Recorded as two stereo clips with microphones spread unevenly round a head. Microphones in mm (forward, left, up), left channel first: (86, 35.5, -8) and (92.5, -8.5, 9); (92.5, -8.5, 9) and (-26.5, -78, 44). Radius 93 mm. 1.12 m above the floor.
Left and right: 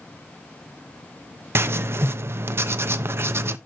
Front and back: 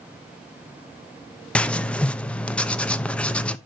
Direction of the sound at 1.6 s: 55° right.